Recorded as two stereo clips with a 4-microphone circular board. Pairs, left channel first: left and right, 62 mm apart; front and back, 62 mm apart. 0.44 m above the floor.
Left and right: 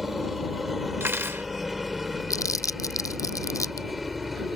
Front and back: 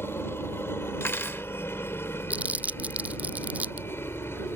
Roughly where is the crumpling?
Behind left.